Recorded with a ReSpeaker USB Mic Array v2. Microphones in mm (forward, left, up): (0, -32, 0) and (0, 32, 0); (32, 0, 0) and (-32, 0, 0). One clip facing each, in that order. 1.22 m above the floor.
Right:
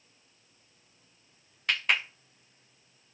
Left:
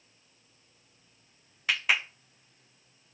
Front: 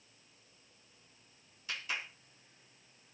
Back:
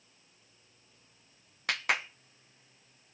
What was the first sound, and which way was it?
A clap, 175° left.